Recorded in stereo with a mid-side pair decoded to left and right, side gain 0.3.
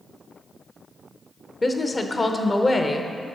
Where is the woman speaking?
35° left, 0.7 m.